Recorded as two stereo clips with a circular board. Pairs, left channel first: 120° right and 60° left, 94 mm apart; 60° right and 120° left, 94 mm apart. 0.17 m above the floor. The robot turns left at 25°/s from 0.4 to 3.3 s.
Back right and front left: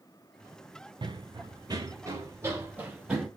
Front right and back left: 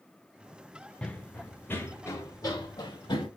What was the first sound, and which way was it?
Running footsteps, 20° left.